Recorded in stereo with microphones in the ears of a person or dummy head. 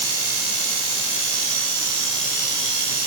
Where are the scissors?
No scissors in this recording.